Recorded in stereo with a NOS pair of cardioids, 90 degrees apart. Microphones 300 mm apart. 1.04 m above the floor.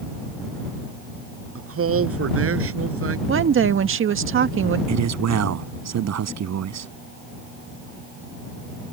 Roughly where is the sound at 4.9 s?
Ahead right.